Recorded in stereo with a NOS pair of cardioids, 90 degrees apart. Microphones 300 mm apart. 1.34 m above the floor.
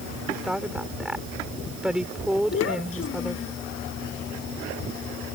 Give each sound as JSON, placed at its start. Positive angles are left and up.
{"t": 0.3, "sound": "a woman speaking", "azimuth_deg": -5}
{"t": 2.5, "sound": "a child speaking", "azimuth_deg": 45}